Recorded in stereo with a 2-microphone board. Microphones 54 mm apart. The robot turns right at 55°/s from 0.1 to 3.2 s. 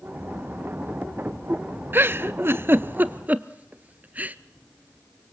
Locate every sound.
1.9 s a giggle: 45° right (ahead or behind), 0.5 m; by 4.3 s 30° right (ahead or behind), 0.5 m